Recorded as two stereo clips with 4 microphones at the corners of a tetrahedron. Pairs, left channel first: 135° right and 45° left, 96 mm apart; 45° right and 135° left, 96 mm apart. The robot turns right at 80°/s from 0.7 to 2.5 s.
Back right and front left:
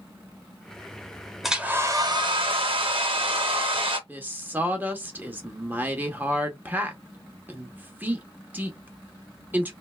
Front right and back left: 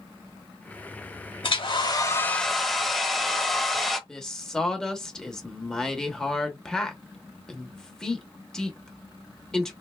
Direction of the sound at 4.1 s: 25° left.